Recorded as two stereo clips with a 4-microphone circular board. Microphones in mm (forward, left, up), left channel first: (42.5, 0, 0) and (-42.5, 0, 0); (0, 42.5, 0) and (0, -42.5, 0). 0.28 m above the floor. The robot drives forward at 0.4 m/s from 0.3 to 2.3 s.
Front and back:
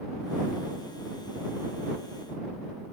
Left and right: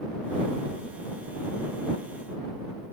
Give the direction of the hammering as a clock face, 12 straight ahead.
No hammering in this recording.